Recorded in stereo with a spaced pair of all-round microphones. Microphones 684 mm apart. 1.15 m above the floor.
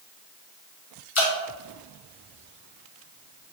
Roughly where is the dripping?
Left.